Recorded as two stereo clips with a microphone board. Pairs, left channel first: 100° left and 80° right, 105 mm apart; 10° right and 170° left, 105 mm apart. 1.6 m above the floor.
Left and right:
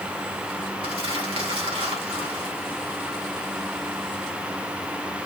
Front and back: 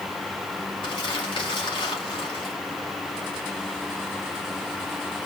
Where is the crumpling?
50° right, 3.5 m.